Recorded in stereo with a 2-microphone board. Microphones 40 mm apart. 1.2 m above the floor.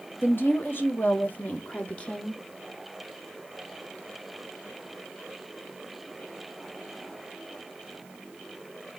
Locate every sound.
0.2 s a woman speaking: 65° left (ahead or behind), 1.8 m; by 2.4 s 15° left (ahead or behind), 0.8 m